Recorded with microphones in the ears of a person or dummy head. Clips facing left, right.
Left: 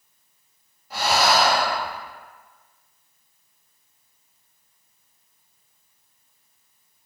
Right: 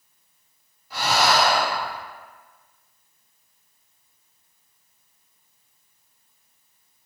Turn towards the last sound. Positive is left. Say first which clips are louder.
# left 1 dB
turn(degrees=50)  # may be behind; listen again after turning